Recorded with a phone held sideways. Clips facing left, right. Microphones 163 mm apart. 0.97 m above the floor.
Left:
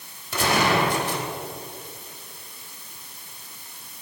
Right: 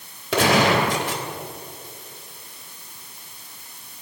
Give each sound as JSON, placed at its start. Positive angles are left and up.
{"t": 0.3, "sound": "a gunshot", "side_deg": -85, "distance_m": 3.0}